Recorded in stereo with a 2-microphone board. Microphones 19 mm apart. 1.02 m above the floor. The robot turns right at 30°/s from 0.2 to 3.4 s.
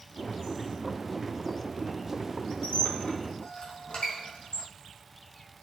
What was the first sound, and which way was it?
A squeak, 85° left.